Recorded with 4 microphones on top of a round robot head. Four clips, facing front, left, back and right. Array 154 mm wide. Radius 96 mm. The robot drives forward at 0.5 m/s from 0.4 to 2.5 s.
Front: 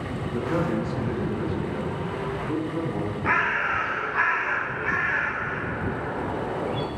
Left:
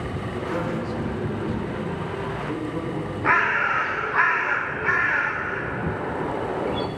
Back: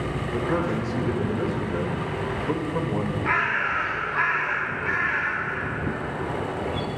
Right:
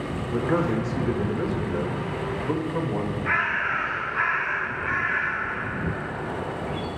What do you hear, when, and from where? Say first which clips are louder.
0.3 s a man speaking: right 5 dB, even; 115° right, 1.4 m; by 3.1 s 145° right, 2 m
3.2 s a bird: left 9 dB, front 3 dB; 90° left, 1.0 m